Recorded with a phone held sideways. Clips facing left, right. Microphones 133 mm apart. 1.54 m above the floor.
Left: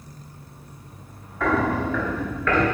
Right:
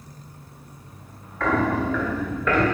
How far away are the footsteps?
About 1.8 m.